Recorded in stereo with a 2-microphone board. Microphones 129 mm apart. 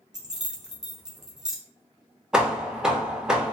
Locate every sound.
0.1 s keys jangling: 5° right (ahead or behind), 0.6 m
2.3 s hammering: 5° right (ahead or behind), 0.6 m